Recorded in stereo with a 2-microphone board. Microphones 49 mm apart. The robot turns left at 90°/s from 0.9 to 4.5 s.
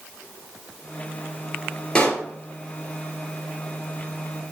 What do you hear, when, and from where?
1.9 s a pop: 15° left (ahead or behind), 2.5 m; by 2.2 s 30° left (ahead or behind), 2.5 m